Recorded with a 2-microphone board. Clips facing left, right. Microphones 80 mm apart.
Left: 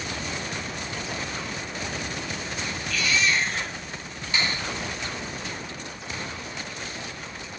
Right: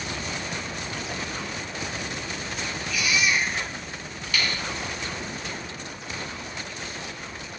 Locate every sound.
2.9 s a baby crying: 15° right (ahead or behind), 10 m
4.3 s a finger snap: 30° left (ahead or behind), 4.5 m